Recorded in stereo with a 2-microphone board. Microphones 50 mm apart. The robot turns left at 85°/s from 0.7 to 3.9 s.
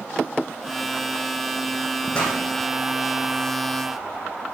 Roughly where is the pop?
Left.